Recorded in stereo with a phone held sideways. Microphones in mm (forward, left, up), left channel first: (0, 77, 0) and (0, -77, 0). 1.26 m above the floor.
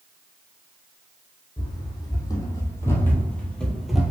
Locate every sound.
1.6 s running footsteps: 25° left (ahead or behind), 2 m; by 4.1 s 5° right (ahead or behind), 1.2 m